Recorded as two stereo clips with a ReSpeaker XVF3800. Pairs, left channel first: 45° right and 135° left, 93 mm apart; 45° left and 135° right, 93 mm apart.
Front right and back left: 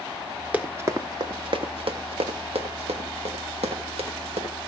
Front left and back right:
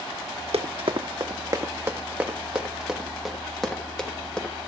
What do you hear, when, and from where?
0.5 s running footsteps: 150° right, 1.6 m; by 4.5 s 130° left, 4.5 m